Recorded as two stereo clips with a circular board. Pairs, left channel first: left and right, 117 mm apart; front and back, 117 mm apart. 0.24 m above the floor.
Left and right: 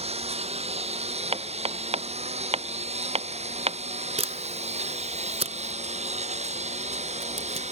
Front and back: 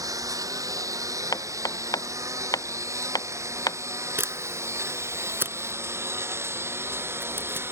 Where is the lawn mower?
120° right; by 7.7 s 110° right.